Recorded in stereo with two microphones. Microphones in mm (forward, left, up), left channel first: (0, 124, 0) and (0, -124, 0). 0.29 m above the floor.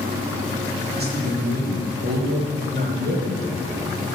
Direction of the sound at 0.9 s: 40° right (ahead or behind).